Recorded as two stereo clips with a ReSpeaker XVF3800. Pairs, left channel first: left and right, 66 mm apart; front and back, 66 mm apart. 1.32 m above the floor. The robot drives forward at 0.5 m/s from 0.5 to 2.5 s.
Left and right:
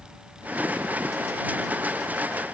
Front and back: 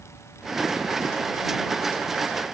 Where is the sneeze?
No sneeze in this recording.